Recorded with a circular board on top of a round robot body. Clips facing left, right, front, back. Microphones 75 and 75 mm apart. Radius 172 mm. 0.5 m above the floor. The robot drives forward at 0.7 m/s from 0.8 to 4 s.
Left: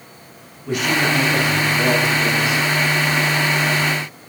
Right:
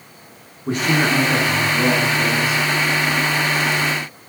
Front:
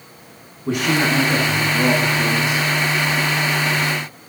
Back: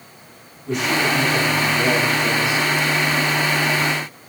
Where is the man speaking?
35° right, 8.5 m; by 2.6 s 40° right, 7.5 m.